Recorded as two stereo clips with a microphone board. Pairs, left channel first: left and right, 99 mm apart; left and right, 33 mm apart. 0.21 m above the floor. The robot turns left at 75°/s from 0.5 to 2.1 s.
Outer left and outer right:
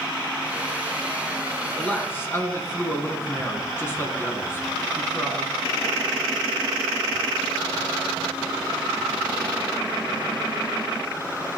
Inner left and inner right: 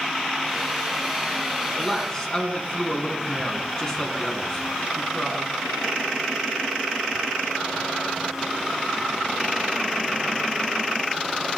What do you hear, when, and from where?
1.8 s a man speaking: 5° left (ahead or behind), 1.8 m; by 5.5 s 25° left (ahead or behind), 1.8 m